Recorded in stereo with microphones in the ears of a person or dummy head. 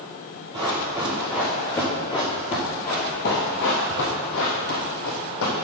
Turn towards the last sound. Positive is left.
turn(degrees=70)  # may be behind; listen again after turning